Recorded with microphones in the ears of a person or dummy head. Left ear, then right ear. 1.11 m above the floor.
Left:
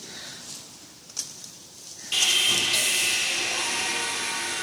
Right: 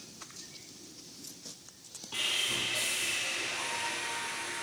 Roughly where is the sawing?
Left.